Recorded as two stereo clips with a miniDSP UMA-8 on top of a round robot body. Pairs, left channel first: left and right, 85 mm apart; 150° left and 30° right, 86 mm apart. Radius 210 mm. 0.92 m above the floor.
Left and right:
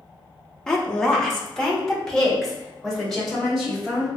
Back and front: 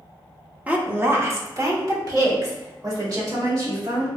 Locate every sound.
0.7 s a woman speaking: 15° left, 0.8 m; by 4.1 s 5° left, 2 m